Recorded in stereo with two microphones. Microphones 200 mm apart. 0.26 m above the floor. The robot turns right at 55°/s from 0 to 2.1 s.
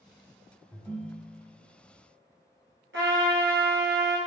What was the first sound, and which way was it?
A ringtone, 165° left.